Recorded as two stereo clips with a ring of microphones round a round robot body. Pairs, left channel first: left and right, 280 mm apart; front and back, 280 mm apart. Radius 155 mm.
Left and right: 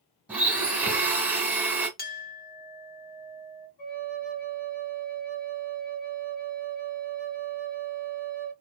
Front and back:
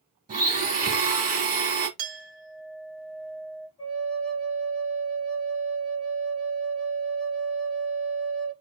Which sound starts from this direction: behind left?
A clink, at 2.0 s.